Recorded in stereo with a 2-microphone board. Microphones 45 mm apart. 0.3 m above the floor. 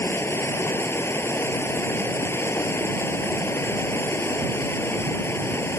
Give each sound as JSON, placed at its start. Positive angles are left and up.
{"t": 0.0, "sound": "running water", "side_deg": 70}